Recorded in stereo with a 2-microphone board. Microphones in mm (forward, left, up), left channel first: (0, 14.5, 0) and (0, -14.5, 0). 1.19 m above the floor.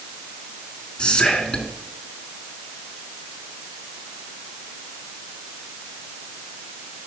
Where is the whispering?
30° left (ahead or behind), 2 m.